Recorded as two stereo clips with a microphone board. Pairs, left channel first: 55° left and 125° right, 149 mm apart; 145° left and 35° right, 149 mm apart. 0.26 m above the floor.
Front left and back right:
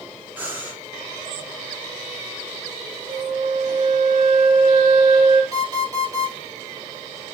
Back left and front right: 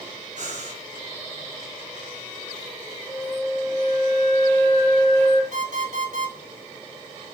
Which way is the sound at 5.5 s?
60° right.